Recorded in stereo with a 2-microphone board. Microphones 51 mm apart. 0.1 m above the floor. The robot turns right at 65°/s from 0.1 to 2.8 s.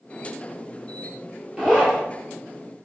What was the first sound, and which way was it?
A zipper, 20° right (ahead or behind).